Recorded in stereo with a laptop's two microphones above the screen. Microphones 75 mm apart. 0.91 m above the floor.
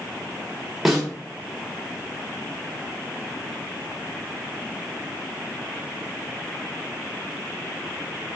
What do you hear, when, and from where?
0.8 s a snare drum: centre (ahead or behind), 1.1 m